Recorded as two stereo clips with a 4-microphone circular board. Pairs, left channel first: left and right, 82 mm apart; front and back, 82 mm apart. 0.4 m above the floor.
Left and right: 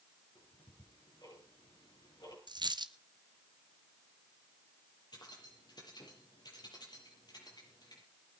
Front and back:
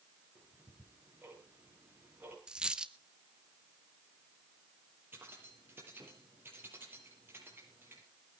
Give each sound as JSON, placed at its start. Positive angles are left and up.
{"t": 0.3, "sound": "ticking", "azimuth_deg": 110, "distance_m": 7.0}
{"t": 2.5, "sound": "a dropped coin", "azimuth_deg": -100, "distance_m": 0.9}
{"t": 5.1, "sound": "keys jangling", "azimuth_deg": 120, "distance_m": 6.5}